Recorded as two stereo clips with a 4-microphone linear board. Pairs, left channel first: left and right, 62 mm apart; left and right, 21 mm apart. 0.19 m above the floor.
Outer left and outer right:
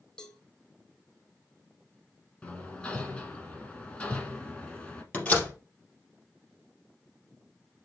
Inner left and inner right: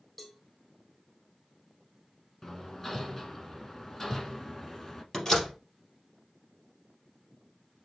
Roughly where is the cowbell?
Centre.